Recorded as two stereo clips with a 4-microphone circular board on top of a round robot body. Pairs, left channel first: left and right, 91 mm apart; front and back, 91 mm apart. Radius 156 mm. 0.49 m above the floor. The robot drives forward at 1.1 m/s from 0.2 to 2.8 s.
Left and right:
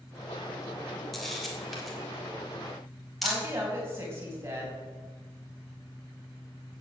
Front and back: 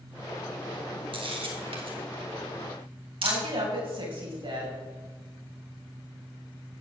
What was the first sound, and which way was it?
A camera shutter, straight behind.